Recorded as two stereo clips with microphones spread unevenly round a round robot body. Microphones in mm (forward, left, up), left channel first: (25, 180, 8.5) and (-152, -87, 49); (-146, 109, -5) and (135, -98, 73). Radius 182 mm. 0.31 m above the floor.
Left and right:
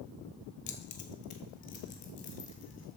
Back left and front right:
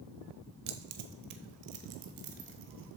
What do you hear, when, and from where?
0.7 s keys jangling: 15° left, 1.1 m; by 3.0 s 5° right, 2 m